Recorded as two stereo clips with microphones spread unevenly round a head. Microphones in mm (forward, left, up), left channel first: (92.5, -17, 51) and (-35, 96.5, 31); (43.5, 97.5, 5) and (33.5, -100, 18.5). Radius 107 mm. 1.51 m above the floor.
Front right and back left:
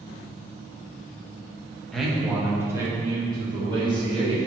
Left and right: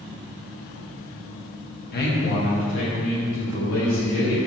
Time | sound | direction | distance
1.9 | a man speaking | 45° left | 1.9 m